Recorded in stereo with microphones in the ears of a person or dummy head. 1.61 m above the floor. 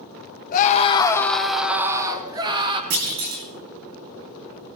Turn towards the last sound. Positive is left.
turn(degrees=-50)  # may be behind; listen again after turning